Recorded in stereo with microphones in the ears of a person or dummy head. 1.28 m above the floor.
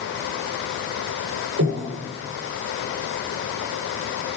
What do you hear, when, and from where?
1.6 s breathing: 70° right (ahead or behind), 3.5 m